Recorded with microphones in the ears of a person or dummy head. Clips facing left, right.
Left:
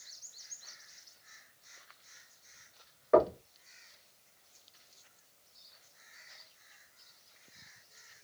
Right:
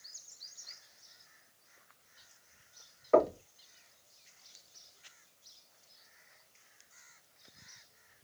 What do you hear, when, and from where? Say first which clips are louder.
3.1 s knocking: left 1 dB; 10° left (ahead or behind), 1.3 m